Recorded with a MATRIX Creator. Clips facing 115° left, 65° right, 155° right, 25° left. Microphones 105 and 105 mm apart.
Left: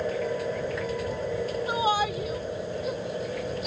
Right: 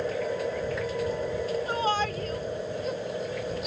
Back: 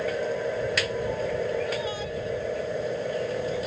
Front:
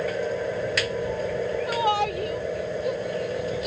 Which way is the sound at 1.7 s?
35° left.